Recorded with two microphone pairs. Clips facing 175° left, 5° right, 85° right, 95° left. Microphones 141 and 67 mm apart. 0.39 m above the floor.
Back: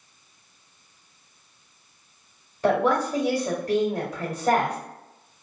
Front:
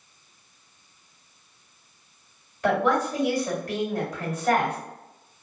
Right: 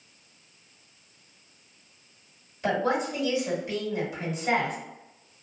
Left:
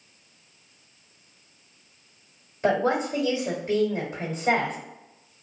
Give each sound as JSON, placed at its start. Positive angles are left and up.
{"t": 2.6, "sound": "a woman speaking", "azimuth_deg": 140, "distance_m": 1.5}